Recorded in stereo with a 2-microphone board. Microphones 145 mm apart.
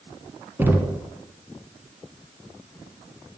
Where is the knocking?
15° right (ahead or behind), 0.9 m.